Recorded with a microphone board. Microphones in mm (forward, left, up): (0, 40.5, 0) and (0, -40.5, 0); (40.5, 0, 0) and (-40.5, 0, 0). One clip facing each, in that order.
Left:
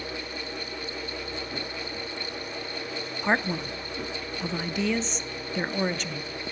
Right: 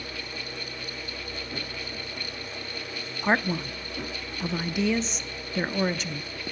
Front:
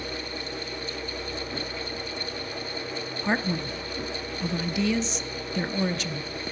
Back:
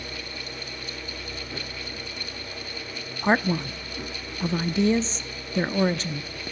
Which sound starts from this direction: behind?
A man speaking, at 3.2 s.